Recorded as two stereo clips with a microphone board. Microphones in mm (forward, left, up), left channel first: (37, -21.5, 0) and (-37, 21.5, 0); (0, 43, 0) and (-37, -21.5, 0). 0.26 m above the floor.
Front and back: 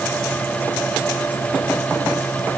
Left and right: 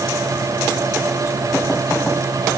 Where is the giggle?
I don't hear a giggle.